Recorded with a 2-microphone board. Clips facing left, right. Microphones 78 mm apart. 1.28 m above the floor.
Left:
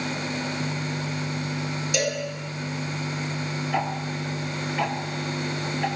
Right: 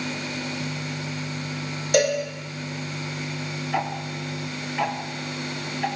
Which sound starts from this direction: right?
A cowbell, at 1.9 s.